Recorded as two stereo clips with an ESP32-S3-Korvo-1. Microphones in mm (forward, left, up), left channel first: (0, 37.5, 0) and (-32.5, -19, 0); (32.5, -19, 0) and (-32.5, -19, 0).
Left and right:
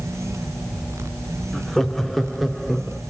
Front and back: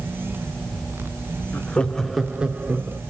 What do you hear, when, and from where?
1.5 s laughter: 15° right, 0.9 m; by 3.0 s 160° left, 1.1 m